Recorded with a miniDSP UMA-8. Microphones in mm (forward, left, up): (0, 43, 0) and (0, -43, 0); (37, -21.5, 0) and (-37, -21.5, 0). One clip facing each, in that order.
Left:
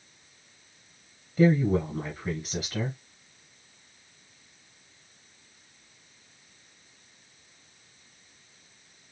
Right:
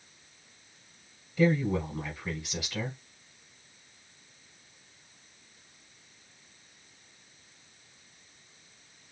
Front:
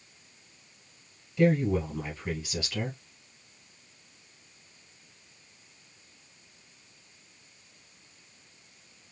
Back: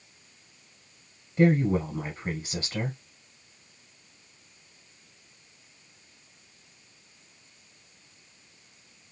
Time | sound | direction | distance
1.4 | a woman speaking | 150° left | 1.9 m